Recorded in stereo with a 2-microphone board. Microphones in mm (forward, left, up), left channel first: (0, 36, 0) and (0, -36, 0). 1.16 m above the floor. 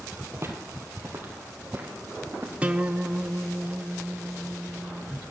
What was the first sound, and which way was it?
Footsteps, 40° right (ahead or behind).